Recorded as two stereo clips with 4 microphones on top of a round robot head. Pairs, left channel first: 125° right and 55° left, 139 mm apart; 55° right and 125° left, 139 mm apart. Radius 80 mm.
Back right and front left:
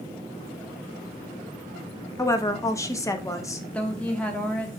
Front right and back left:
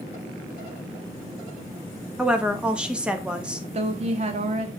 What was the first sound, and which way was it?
A woman speaking, 160° right.